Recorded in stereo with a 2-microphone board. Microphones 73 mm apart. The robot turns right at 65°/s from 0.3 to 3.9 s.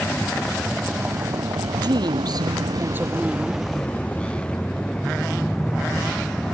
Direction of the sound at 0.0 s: 25° left (ahead or behind).